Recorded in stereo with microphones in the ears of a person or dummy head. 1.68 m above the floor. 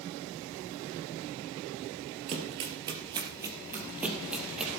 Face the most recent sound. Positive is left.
turn(degrees=5)  # may be behind; listen again after turning